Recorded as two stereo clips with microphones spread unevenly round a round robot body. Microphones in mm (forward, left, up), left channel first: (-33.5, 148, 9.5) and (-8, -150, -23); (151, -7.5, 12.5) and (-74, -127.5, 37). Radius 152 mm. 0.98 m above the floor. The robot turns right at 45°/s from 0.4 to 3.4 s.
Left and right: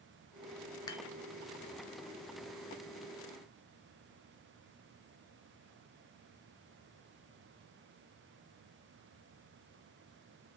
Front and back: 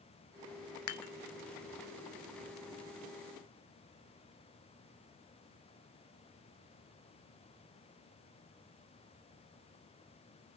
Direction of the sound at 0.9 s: 15° left.